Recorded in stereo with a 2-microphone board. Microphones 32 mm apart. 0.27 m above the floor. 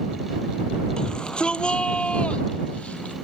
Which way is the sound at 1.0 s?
25° left (ahead or behind).